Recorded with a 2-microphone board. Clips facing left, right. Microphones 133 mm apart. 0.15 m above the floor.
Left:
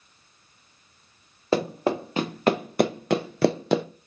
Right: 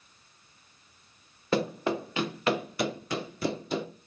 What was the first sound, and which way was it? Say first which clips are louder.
Running footsteps: left 4 dB; 30° left (ahead or behind).